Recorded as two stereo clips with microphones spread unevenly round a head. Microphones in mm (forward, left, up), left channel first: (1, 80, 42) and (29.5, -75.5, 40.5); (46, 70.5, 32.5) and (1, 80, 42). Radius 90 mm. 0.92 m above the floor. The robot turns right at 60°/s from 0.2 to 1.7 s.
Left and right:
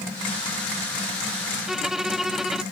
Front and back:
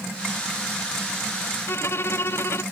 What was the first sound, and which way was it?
A violin, 5° left.